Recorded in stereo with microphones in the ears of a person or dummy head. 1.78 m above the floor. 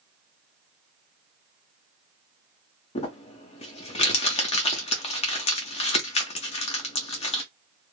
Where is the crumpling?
25° left (ahead or behind), 0.7 m.